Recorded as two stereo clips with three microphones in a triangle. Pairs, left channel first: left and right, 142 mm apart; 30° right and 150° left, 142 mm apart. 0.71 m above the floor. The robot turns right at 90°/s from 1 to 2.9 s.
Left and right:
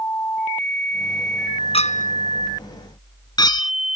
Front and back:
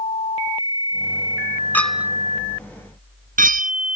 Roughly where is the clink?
Ahead left.